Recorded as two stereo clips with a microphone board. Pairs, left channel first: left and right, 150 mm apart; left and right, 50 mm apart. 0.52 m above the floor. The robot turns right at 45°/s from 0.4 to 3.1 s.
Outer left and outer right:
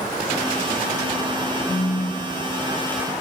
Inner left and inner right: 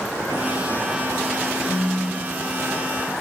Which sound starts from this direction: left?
A phone buzzing, at 1.7 s.